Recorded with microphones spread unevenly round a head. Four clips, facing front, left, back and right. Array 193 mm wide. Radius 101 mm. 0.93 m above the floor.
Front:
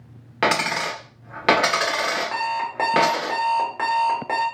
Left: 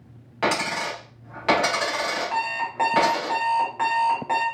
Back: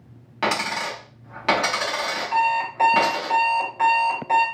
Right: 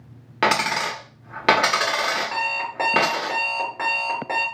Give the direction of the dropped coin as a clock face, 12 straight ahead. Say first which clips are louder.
Right 3 dB, front 3 dB; 2 o'clock.